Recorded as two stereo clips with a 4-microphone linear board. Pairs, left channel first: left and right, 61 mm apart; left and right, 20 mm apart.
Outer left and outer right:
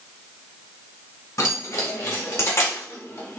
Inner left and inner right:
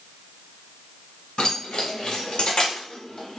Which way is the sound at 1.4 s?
65° left (ahead or behind).